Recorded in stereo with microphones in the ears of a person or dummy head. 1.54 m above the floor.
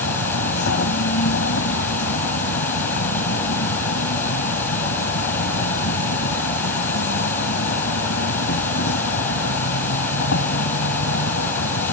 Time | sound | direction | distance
0.0 | an insect | 65° left (ahead or behind) | ?